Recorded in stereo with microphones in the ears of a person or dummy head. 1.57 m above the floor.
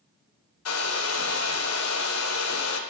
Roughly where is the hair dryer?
Left.